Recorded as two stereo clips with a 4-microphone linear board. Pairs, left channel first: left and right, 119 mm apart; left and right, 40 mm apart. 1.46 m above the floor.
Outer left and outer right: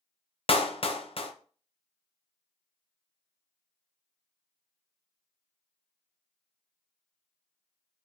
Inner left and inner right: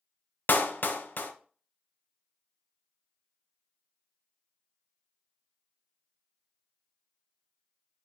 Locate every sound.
0.5 s a clap: 50° left (ahead or behind), 0.6 m